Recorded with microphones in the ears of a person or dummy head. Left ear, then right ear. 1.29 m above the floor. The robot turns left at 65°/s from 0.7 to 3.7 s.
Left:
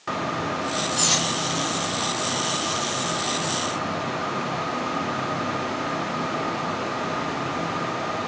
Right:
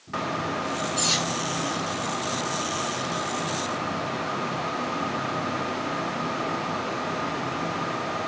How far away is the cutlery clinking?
About 2 m.